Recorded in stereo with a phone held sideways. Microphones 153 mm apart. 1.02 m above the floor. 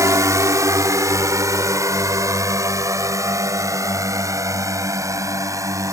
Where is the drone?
20° right (ahead or behind).